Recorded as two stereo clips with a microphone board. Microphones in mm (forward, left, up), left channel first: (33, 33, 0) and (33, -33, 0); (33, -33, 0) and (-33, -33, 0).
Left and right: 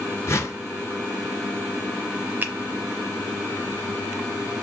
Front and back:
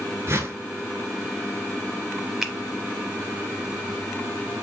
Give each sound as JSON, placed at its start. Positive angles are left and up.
{"t": 0.3, "sound": "a whoosh", "azimuth_deg": 135, "distance_m": 0.7}
{"t": 2.4, "sound": "a finger snap", "azimuth_deg": -100, "distance_m": 0.8}